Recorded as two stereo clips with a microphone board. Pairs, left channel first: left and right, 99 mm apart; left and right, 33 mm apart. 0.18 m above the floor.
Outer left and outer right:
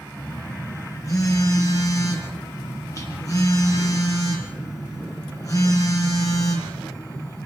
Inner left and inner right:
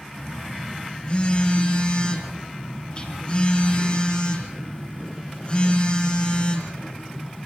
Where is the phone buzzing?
35° left (ahead or behind), 5.5 m.